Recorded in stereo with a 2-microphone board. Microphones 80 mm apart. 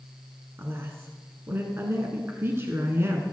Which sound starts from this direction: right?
A woman speaking, at 0.6 s.